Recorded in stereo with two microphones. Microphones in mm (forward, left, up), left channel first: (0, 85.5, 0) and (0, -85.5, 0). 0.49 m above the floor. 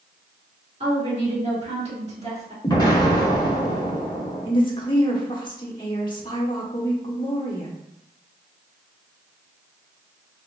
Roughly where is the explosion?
Left.